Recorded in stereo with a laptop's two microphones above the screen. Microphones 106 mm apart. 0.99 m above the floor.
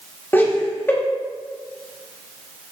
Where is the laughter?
20° left (ahead or behind), 1.8 m.